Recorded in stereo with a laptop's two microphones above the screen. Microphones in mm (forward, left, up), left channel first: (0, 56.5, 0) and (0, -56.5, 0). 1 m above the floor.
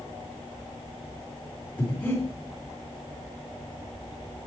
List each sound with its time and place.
1.8 s breathing: 20° left (ahead or behind), 2.5 m